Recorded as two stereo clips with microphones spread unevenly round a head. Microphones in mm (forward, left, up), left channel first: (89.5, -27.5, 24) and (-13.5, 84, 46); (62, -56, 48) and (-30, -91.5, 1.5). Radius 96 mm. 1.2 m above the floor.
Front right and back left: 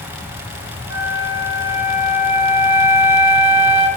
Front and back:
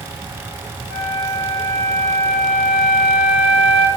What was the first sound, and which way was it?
A flute, 75° left.